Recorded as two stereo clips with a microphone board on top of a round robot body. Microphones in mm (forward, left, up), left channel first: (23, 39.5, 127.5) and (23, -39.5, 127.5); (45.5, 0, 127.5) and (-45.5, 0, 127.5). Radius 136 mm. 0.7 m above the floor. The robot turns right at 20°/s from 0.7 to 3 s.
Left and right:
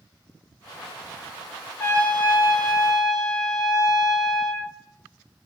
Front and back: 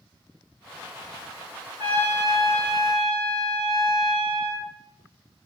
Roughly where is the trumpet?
Behind left.